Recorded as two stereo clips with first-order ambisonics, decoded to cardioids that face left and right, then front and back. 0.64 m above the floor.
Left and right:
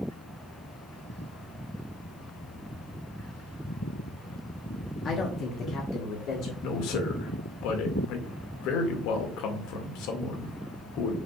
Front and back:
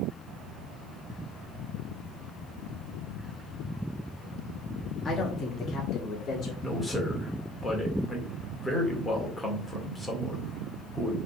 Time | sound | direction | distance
5.0 | a woman speaking | 60° left | 1.1 m
6.6 | a man speaking | 80° left | 2 m